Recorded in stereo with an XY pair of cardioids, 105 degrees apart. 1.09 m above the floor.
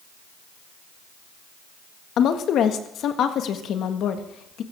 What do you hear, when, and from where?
2.2 s a woman speaking: 70° left, 1.5 m